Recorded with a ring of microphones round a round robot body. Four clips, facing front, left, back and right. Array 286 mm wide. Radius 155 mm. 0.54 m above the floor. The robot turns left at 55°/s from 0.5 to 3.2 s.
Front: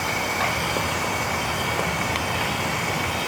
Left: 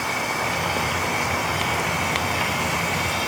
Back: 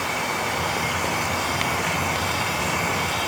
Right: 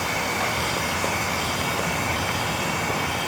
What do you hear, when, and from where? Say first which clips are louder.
0.0 s running water: even, front 1 dB; 85° right, 2 m; by 3.3 s 130° left, 2 m